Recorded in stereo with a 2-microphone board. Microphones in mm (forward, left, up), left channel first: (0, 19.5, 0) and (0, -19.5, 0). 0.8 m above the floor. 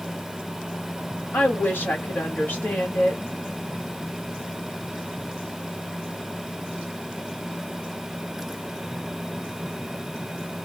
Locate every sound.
1.3 s a woman speaking: 55° left (ahead or behind), 1.4 m